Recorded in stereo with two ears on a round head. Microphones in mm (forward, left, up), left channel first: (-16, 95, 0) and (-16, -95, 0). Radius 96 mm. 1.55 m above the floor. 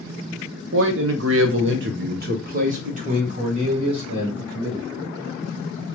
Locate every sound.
0.7 s a man speaking: 65° right (ahead or behind), 0.7 m; by 4.9 s 20° right (ahead or behind), 2 m